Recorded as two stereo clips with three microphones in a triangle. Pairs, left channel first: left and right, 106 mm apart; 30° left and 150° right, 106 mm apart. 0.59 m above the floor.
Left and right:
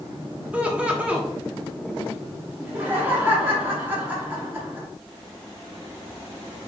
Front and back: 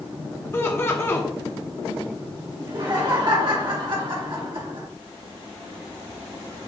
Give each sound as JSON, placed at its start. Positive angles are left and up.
{"t": 0.5, "sound": "laughter", "azimuth_deg": -20, "distance_m": 0.7}
{"t": 2.6, "sound": "laughter", "azimuth_deg": -155, "distance_m": 0.9}